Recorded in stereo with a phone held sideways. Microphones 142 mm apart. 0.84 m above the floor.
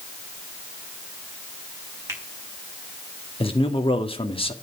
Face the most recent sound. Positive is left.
turn(degrees=40)  # may be behind; listen again after turning